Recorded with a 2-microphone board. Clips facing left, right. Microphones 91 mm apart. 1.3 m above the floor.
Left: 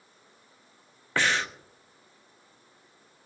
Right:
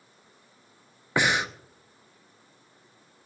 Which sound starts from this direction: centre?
Breathing, at 1.2 s.